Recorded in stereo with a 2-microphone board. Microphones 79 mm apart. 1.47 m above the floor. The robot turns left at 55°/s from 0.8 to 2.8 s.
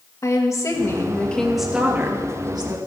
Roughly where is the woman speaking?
Ahead left.